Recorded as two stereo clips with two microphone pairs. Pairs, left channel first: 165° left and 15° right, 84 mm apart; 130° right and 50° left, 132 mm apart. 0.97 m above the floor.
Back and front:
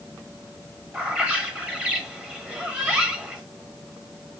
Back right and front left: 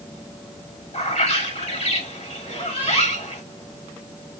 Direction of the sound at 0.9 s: 90° right.